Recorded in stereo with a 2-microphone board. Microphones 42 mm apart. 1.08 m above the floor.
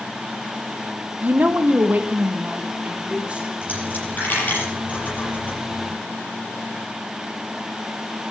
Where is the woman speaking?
35° right (ahead or behind), 0.9 m; by 3.5 s 25° right (ahead or behind), 3 m.